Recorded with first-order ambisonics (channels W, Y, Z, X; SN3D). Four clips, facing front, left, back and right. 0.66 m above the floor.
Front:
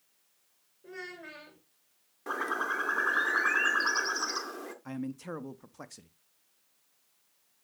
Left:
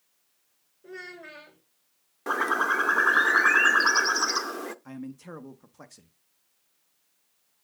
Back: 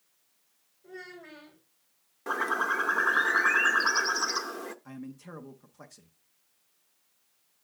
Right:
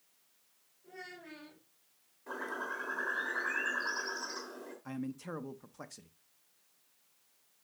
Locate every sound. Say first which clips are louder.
0.8 s a child speaking: left 7 dB, front 2 dB; 60° left, 2.0 m
2.3 s a bird: left 15 dB, back 4 dB; 100° left, 0.6 m
4.8 s a man speaking: left 1 dB, front 5 dB; 5° right, 0.5 m